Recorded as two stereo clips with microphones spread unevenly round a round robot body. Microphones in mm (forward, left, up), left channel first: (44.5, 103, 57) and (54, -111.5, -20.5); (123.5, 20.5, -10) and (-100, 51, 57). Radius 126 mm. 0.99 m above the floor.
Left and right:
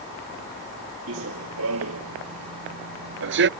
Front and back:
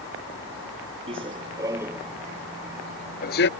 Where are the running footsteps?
135° right; by 3.5 s 50° right.